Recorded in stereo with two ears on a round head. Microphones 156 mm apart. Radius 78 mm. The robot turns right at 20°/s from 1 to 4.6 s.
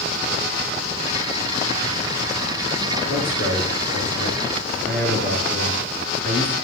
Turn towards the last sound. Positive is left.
turn(degrees=75)  # may be behind; listen again after turning